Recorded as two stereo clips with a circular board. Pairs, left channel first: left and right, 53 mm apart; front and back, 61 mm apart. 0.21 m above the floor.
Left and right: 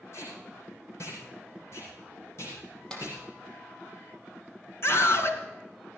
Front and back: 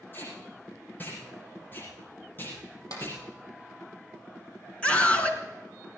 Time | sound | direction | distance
0.1 | tape being pulled | 60° left | 6.5 m
2.9 | a clap | 15° left | 5 m
4.8 | a scream | 70° left | 3 m